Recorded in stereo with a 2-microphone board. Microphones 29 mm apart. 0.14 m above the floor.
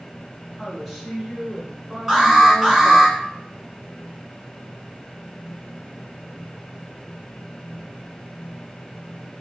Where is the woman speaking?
5° right (ahead or behind), 1.3 m.